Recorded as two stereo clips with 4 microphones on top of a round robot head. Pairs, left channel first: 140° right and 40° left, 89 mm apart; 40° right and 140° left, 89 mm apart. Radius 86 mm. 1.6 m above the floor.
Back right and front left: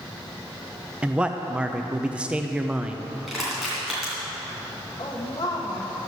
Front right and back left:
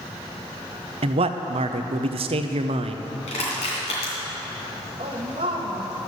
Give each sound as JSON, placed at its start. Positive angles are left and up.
{"t": 1.0, "sound": "a man speaking", "azimuth_deg": 120, "distance_m": 0.6}
{"t": 3.3, "sound": "crushing", "azimuth_deg": -45, "distance_m": 2.5}
{"t": 5.0, "sound": "a woman speaking", "azimuth_deg": 170, "distance_m": 0.8}